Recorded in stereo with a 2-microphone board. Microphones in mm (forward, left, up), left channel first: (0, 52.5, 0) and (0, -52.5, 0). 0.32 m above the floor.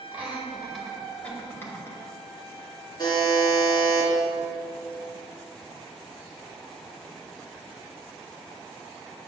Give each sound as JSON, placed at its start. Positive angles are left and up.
{"t": 0.1, "sound": "laughter", "side_deg": -15, "distance_m": 1.5}
{"t": 3.0, "sound": "a buzzer", "side_deg": 40, "distance_m": 2.5}